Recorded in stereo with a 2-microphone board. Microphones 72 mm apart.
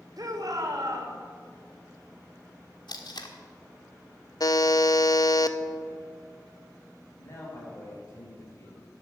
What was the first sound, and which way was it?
A shout, 60° right (ahead or behind).